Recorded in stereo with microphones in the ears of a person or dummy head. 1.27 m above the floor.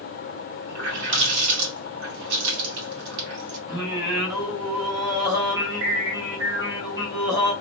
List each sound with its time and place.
0.7 s a running tap: 60° right (ahead or behind), 1.9 m
3.7 s singing: 20° right (ahead or behind), 2.0 m